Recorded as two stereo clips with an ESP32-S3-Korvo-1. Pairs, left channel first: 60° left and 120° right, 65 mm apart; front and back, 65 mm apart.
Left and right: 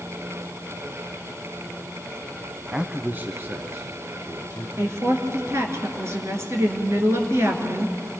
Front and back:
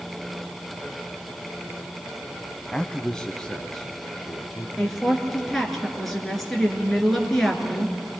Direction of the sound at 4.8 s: 85° right.